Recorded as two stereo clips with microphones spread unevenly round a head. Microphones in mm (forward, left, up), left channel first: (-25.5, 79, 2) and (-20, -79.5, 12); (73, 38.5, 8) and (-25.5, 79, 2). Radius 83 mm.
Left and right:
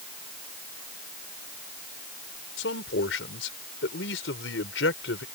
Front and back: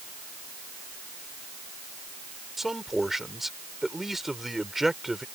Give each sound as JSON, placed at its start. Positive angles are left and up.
{"t": 2.6, "sound": "a man speaking", "azimuth_deg": 70}